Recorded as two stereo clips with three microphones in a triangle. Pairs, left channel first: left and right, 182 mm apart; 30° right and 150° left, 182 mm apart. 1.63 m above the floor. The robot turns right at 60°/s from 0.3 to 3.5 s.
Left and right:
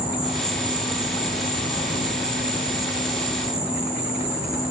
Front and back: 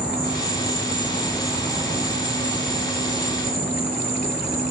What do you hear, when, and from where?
0.0 s an insect: 5° right, 2 m; by 4.7 s 175° right, 2 m